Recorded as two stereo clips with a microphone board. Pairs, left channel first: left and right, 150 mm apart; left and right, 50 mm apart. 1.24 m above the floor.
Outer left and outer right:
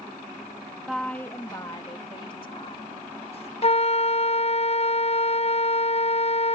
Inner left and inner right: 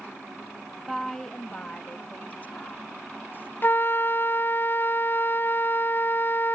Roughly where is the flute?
Left.